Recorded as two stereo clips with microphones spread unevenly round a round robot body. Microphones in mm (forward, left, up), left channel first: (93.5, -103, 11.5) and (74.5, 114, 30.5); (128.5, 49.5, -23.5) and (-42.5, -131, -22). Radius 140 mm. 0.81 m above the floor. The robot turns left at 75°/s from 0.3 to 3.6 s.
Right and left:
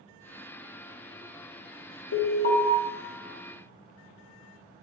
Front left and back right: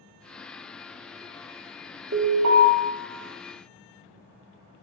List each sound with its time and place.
2.1 s an alarm: 95° right, 1.5 m; by 2.7 s 135° right, 1.5 m